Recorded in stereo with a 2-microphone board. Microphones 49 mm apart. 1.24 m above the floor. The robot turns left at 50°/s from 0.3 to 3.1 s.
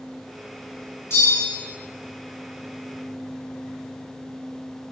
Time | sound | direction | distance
1.1 | a bell | 60° left (ahead or behind) | 0.9 m